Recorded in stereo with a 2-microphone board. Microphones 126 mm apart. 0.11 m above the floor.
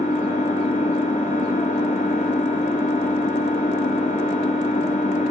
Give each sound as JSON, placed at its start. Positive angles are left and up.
{"t": 0.0, "sound": "an engine running", "side_deg": 80, "distance_m": 3.5}